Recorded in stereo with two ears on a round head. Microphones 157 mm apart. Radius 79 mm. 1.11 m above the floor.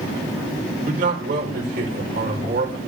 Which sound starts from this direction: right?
A man speaking, at 0.9 s.